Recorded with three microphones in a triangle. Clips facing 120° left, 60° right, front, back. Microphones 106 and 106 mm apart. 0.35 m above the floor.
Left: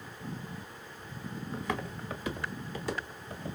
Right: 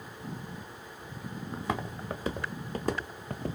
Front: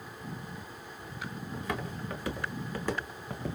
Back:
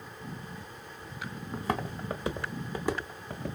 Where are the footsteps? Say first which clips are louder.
Right 2 dB, back 5 dB; 125° right, 1.6 m; by 3.6 s 85° right, 1.1 m.